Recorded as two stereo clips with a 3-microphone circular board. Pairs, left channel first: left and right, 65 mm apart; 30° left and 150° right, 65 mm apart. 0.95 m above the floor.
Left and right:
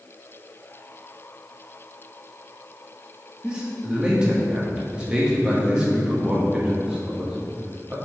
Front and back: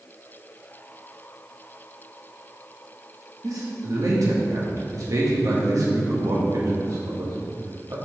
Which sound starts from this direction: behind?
A man speaking, at 3.4 s.